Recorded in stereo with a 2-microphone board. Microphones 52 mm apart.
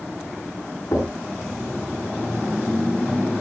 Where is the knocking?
80° left, 9 m.